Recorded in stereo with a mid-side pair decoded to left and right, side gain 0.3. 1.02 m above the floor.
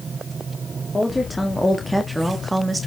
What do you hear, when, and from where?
0.9 s a woman speaking: 20° left, 3 m; by 2.9 s 40° right, 2.5 m